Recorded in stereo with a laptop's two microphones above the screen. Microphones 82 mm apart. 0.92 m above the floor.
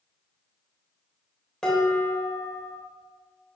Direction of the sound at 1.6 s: 5° left (ahead or behind).